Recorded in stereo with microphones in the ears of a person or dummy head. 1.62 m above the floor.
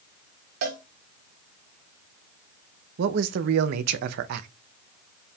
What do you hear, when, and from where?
0.6 s a cowbell: 55° right (ahead or behind), 1.3 m
3.0 s a man speaking: 60° right (ahead or behind), 0.5 m